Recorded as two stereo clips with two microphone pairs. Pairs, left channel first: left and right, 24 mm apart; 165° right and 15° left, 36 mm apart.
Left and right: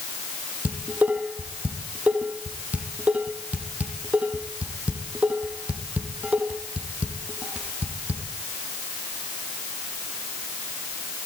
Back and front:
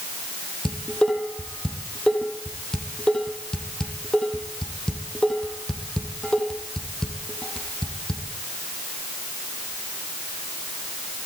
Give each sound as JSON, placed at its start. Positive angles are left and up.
{"t": 0.7, "sound": "dishes clattering", "azimuth_deg": -95, "distance_m": 5.0}